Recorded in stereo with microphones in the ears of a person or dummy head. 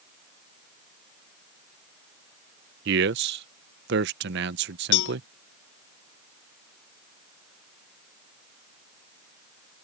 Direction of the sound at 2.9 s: 55° right (ahead or behind).